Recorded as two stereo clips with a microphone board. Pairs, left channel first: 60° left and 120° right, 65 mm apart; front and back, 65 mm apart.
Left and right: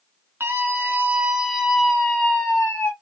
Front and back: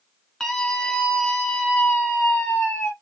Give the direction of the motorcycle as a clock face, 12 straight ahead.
No motorcycle in this recording.